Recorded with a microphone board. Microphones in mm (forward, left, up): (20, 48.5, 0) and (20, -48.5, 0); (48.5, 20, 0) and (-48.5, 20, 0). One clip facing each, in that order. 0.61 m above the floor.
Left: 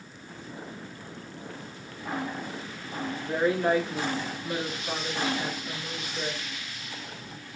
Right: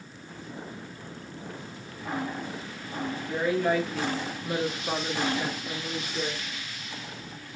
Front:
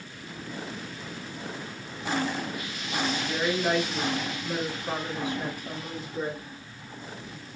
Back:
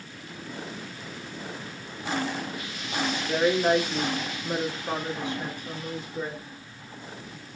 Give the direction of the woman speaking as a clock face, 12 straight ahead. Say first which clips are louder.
Left 2 dB, back 8 dB; 8 o'clock.